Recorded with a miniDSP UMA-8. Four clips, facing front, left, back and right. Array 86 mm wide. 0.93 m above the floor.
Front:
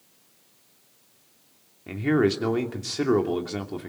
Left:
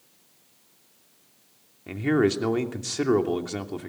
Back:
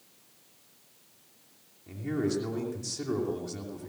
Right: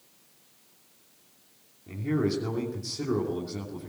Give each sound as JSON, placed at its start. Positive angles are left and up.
{"t": 1.9, "sound": "a man speaking", "azimuth_deg": 50, "distance_m": 2.5}